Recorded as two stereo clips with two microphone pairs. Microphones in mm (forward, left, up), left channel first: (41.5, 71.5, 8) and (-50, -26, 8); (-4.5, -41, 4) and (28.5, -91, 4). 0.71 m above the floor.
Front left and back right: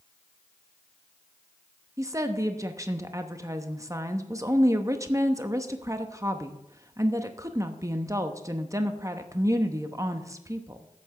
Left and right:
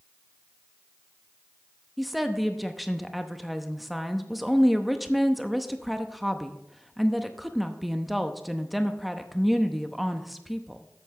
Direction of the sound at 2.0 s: 130° right.